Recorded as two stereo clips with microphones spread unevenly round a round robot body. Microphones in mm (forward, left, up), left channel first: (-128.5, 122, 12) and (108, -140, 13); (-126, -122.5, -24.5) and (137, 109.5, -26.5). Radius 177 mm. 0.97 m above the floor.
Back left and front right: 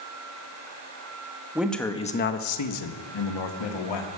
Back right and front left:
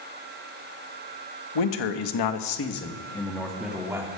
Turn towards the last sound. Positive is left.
turn(degrees=125)